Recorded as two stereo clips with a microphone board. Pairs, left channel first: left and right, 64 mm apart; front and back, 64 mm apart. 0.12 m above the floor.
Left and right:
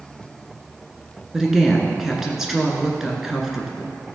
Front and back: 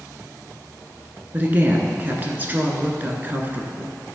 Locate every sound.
1.3 s a woman speaking: 165° right, 1.4 m